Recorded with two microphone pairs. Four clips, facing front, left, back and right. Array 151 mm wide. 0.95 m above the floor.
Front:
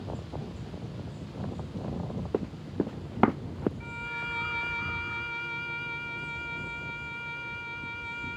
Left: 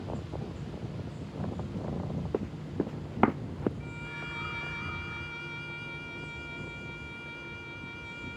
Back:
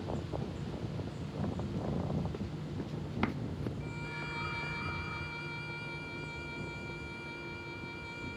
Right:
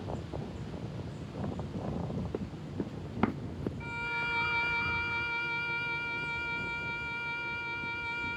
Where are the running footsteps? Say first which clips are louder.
Left 5 dB, front 10 dB; 30° left; by 3.7 s 35° left.